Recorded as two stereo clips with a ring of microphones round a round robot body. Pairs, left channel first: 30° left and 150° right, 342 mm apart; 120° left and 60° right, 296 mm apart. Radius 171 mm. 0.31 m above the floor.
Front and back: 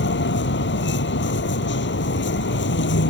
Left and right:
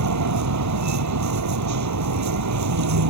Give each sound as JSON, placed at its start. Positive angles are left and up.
{"t": 0.0, "sound": "a vehicle", "azimuth_deg": -30}